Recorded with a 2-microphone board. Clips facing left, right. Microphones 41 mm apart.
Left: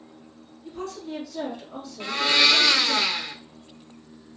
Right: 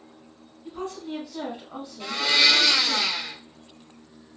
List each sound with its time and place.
0.7 s a woman speaking: 30° right (ahead or behind), 1.5 m
2.0 s a blender: 30° left (ahead or behind), 0.7 m